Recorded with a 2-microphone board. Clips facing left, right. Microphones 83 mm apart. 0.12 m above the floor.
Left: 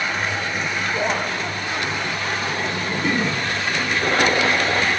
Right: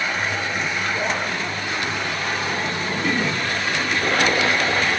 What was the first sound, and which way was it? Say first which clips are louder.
Laughter: left 1 dB; 10° left (ahead or behind).